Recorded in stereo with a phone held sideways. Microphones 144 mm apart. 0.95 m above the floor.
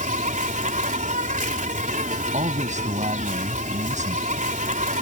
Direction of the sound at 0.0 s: 65° right (ahead or behind).